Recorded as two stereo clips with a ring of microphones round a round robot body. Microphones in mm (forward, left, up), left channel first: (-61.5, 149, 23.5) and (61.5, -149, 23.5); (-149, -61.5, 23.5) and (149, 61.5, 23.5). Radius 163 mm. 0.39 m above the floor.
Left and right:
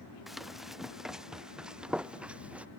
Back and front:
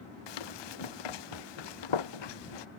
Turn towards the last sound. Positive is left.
turn(degrees=-155)